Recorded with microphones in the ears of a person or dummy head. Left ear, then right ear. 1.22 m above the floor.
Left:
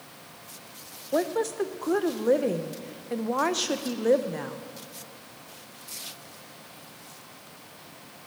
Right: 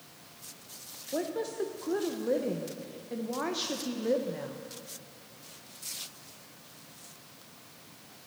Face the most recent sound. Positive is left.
turn(degrees=35)  # may be behind; listen again after turning